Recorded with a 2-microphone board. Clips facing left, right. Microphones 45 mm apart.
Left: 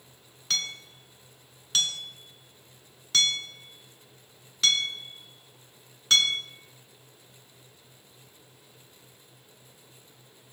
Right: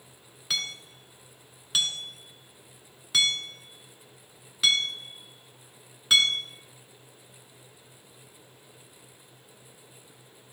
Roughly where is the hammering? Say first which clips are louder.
Even; centre.